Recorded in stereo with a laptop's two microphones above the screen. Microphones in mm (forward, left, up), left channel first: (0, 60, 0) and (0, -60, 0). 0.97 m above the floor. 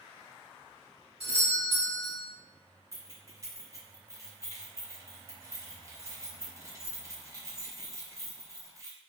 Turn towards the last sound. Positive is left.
turn(degrees=-30)  # may be behind; listen again after turning